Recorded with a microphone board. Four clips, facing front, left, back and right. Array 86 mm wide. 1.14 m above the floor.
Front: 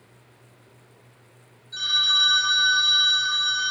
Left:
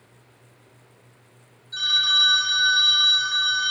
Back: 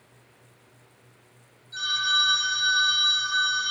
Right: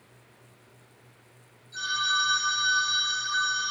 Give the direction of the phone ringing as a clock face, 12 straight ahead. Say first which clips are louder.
Even, back 1 dB; 10 o'clock.